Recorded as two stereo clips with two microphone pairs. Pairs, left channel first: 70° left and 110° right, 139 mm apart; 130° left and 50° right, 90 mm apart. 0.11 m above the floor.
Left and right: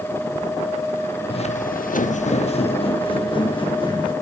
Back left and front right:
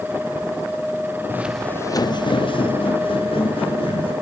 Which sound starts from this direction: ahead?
Footsteps, at 1.3 s.